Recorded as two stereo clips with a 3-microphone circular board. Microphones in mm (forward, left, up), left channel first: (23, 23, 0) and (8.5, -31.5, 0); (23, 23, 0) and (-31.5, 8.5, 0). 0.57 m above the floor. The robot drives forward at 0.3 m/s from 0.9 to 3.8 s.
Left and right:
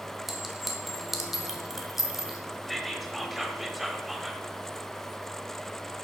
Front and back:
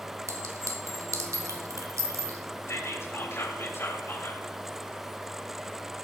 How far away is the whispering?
About 1.7 m.